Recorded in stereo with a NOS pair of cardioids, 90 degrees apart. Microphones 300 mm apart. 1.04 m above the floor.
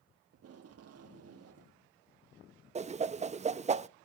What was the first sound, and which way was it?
Tape being pulled, 50° right.